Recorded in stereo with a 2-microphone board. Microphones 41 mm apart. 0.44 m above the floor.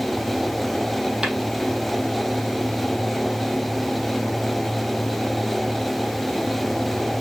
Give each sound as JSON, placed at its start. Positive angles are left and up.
{"t": 1.2, "sound": "tapping", "side_deg": -20, "distance_m": 3.0}